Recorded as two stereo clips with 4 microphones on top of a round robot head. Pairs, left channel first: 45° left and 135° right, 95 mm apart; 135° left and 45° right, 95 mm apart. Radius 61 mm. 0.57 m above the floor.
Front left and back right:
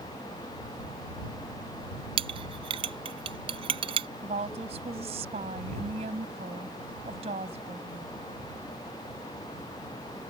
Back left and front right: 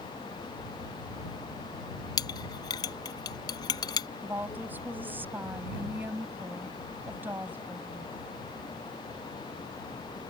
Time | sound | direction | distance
2.2 | a clink | 170° right | ?
4.2 | a woman speaking | 115° right | ?